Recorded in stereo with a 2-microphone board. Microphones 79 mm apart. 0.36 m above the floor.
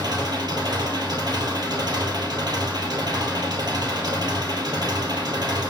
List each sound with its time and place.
0.0 s an engine running: 60° right (ahead or behind), 2.5 m